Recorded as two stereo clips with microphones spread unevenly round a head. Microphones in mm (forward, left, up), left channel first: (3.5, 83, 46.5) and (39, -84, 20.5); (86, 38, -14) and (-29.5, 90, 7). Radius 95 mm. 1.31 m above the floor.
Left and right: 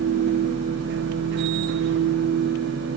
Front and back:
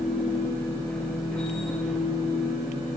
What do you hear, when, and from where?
0.0 s a machine running: 110° right, 1.5 m